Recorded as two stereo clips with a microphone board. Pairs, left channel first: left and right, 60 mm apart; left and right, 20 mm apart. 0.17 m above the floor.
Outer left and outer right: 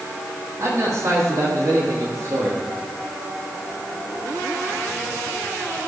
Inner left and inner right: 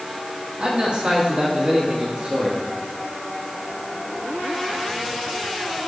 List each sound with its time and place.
0.6 s a man speaking: 60° right (ahead or behind), 7.5 m